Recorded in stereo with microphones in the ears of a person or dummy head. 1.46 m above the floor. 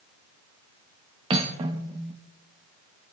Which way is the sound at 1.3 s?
25° right (ahead or behind).